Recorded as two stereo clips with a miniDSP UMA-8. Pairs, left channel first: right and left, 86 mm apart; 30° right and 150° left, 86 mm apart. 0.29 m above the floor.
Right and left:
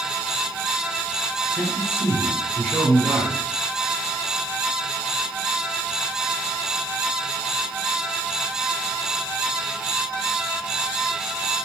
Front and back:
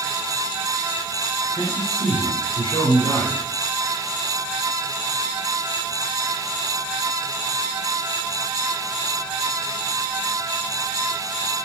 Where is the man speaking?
25° right, 2.5 m.